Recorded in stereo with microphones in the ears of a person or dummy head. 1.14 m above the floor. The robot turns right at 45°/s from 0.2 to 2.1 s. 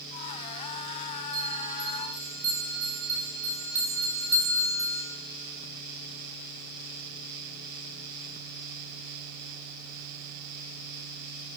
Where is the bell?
50° right, 8 m; by 5.0 s 15° right, 8 m.